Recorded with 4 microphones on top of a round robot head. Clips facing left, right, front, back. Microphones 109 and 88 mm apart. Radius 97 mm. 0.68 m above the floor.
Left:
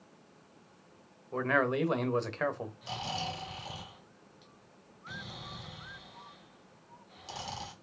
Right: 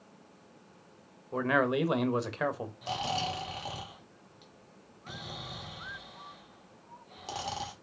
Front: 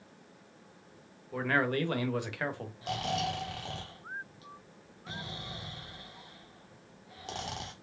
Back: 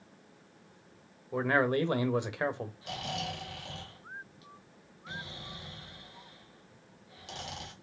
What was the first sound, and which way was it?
A man speaking, 160° right.